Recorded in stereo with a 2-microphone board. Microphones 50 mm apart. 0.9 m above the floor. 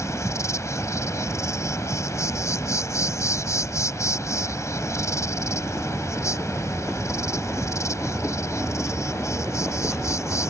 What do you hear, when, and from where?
0.0 s an insect: 75° left (ahead or behind)